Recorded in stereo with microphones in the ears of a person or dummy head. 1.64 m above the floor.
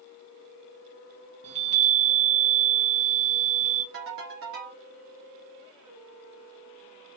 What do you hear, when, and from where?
1.4 s a chime: 35° right (ahead or behind), 1.5 m
3.9 s a ringtone: 55° right (ahead or behind), 1.7 m